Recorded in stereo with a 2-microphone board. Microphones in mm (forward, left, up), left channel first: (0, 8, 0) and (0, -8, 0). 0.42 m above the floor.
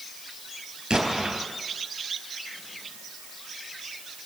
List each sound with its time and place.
0.9 s an explosion: 75° right (ahead or behind), 3.5 m